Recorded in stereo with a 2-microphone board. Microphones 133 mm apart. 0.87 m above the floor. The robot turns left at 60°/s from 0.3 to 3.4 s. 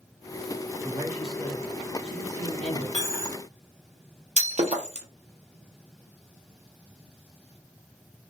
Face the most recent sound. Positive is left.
turn(degrees=-55)  # may be behind; listen again after turning